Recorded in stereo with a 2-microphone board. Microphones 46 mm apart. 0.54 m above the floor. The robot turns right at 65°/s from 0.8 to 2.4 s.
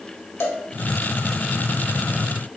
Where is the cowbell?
65° left (ahead or behind), 0.6 m.